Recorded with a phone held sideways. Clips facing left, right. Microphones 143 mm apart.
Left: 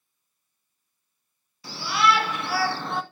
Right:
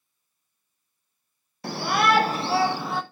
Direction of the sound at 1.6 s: 60° right (ahead or behind).